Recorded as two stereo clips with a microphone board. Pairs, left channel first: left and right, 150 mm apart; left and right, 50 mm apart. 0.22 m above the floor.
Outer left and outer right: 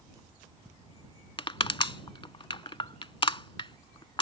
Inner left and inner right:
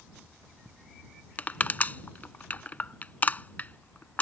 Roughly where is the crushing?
Left.